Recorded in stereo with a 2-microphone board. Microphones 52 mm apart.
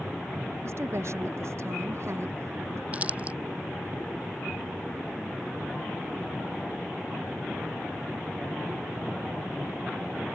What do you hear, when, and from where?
0.6 s a woman speaking: 60° right (ahead or behind)
2.9 s crumpling: 25° right (ahead or behind)